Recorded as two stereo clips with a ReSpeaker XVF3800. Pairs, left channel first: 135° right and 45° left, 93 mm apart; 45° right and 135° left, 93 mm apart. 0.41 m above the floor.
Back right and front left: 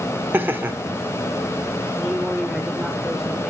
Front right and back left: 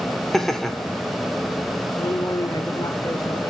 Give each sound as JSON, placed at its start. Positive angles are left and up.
{"t": 0.3, "sound": "laughter", "azimuth_deg": 40, "distance_m": 0.9}
{"t": 2.0, "sound": "a man speaking", "azimuth_deg": -40, "distance_m": 1.2}